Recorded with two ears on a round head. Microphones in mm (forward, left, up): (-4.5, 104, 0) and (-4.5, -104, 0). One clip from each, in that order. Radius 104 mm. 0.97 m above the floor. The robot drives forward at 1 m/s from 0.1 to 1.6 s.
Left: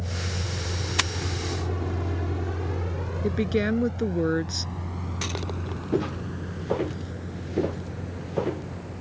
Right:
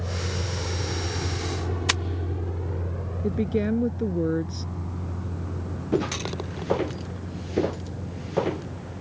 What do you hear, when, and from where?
0.0 s a vehicle: 50° right (ahead or behind); by 9.0 s 65° left (ahead or behind)
3.2 s a woman speaking: 55° left (ahead or behind)
5.9 s footsteps: 15° right (ahead or behind); by 8.7 s 25° right (ahead or behind)